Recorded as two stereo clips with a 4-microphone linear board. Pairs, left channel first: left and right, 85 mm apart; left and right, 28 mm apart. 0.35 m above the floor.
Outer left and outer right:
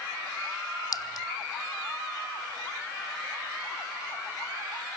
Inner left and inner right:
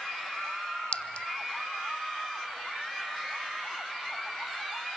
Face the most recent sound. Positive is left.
turn(degrees=50)  # may be behind; listen again after turning